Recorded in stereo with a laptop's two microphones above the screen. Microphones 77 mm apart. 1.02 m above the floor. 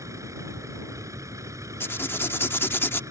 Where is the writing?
30° left (ahead or behind).